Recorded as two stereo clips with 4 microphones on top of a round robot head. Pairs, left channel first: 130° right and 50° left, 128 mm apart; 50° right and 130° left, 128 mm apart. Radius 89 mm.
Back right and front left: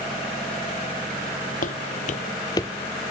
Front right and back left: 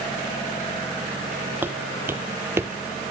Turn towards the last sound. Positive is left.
turn(degrees=170)